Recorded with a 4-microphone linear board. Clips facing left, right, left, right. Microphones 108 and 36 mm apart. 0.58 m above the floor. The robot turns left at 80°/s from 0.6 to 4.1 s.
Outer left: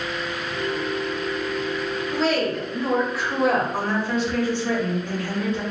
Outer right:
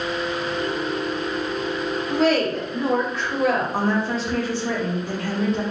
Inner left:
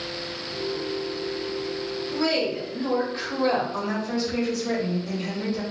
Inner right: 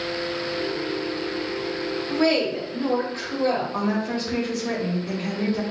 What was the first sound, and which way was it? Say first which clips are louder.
A woman speaking: outer right 3 dB, inner right 4 dB; 105° right.